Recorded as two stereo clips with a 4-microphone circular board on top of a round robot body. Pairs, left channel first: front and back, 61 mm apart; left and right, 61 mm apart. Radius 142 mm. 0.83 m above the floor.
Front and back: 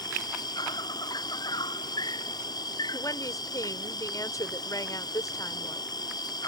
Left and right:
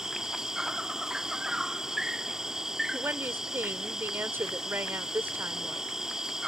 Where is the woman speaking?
35° right.